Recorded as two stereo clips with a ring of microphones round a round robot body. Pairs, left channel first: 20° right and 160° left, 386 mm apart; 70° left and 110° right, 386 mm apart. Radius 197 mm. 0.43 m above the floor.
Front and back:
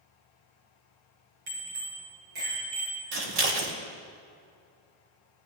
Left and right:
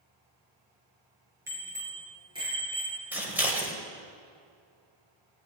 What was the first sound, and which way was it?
A bicycle bell, 165° left.